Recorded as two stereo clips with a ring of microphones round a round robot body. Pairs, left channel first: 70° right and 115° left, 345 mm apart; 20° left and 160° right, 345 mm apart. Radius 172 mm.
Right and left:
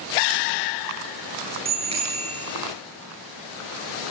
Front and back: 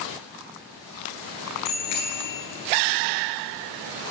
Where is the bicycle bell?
40° left, 10 m.